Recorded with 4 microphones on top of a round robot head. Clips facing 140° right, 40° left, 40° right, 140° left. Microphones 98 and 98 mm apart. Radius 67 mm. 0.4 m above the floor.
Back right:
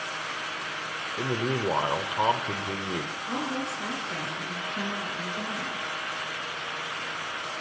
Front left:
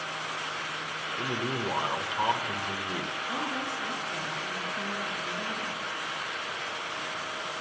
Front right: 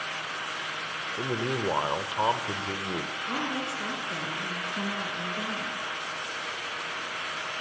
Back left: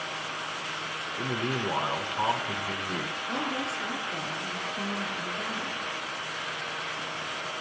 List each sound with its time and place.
1.2 s a man speaking: 95° right, 1.8 m
3.2 s a woman speaking: 90° right, 7.5 m